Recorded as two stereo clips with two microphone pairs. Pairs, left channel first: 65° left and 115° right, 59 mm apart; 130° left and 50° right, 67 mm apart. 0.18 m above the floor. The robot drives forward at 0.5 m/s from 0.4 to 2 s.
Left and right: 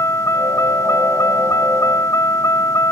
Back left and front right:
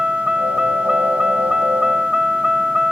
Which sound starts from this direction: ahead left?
A vehicle, at 0.0 s.